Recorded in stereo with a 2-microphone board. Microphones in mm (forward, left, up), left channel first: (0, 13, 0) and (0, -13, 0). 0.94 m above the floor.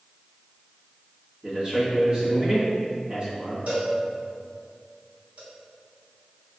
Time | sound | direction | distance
1.4 | a man speaking | 35° right (ahead or behind) | 1.4 m
3.7 | a cowbell | 75° right (ahead or behind) | 1.8 m